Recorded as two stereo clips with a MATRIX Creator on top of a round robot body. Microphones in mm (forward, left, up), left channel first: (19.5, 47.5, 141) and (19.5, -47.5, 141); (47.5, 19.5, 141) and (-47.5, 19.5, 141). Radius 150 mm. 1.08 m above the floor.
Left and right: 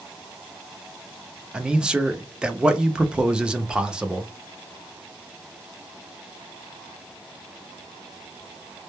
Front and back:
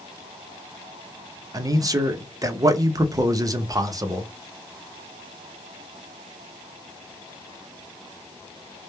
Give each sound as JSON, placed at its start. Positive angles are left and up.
{"t": 1.5, "sound": "a man speaking", "azimuth_deg": -165, "distance_m": 0.6}